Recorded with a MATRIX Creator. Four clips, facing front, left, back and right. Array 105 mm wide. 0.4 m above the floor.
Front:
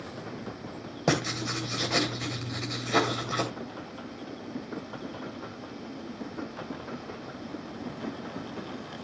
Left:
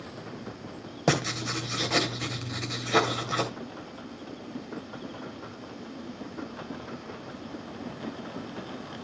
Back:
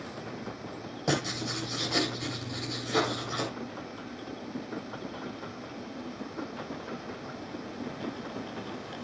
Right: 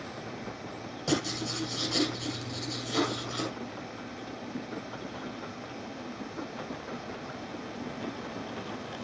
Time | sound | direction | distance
1.1 | writing | 55° left | 2 m